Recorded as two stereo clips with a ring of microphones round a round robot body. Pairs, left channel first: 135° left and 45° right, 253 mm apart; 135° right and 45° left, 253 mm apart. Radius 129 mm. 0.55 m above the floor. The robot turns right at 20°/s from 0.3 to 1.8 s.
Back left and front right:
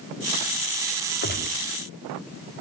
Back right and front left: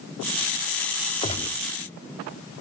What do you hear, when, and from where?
1.2 s a gunshot: 165° left, 0.9 m; by 1.7 s 170° left, 0.9 m